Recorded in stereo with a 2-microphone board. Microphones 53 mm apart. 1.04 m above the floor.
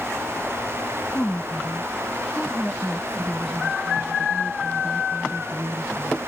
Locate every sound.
1.1 s a woman speaking: 25° left (ahead or behind); by 6.2 s 25° right (ahead or behind)